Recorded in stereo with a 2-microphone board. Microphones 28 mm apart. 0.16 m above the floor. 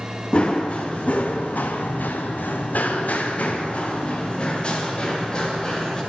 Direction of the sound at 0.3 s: 40° left (ahead or behind).